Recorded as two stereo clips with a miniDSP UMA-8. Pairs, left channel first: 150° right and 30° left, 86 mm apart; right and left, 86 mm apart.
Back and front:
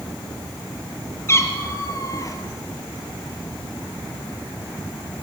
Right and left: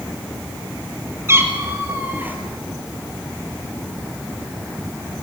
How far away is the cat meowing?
About 3.5 m.